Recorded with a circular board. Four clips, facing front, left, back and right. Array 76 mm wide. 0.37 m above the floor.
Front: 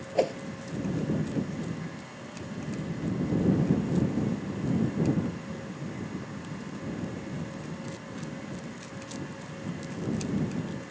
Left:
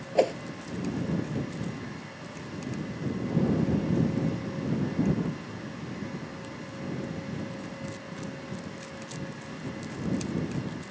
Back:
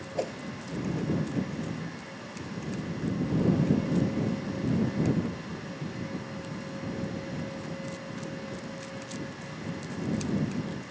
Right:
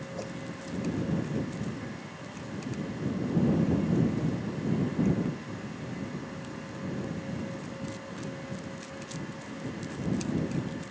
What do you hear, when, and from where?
0.1 s a whoosh: 70° left